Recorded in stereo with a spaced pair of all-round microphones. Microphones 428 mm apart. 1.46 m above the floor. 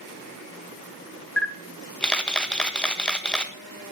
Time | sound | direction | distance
1.4 | a camera shutter | centre (ahead or behind) | 1.5 m